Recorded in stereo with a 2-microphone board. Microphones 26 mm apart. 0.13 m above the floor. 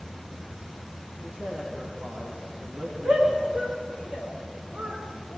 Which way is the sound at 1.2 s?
70° right (ahead or behind).